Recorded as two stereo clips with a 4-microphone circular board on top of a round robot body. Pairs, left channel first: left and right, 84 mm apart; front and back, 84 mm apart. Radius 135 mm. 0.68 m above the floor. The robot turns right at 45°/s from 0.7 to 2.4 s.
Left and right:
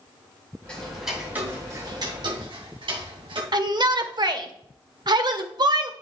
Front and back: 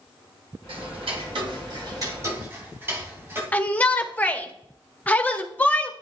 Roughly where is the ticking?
Behind.